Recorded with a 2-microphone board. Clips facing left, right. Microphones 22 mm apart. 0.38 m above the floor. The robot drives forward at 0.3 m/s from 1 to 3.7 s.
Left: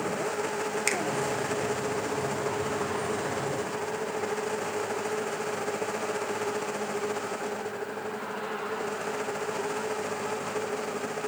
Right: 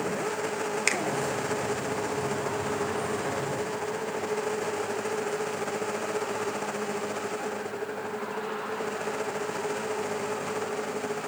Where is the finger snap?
15° right (ahead or behind), 0.9 m.